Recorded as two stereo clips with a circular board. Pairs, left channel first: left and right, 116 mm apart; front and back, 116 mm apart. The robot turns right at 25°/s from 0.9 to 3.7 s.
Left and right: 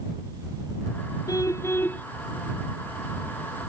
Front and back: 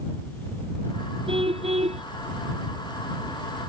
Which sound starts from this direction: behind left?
A car horn, at 1.3 s.